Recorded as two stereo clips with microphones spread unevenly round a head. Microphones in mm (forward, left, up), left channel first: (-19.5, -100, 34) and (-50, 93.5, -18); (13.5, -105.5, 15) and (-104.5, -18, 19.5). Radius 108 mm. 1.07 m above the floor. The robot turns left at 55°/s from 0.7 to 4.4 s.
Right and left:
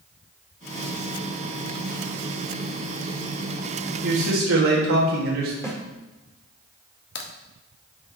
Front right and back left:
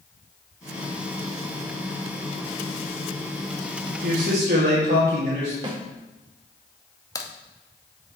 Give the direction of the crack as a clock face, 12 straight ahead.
3 o'clock.